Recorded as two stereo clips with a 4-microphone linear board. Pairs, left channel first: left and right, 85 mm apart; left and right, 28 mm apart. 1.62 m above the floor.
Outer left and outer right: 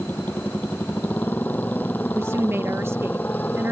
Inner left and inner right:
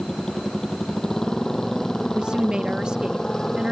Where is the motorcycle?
25° left (ahead or behind).